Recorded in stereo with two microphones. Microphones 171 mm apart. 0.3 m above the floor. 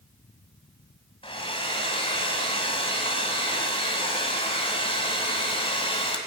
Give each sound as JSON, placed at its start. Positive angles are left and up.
{"t": 1.2, "sound": "a hair dryer", "side_deg": 35, "distance_m": 1.6}